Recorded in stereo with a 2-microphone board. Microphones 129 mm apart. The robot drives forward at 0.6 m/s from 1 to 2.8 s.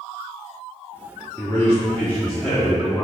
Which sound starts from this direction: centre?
A man speaking, at 1.4 s.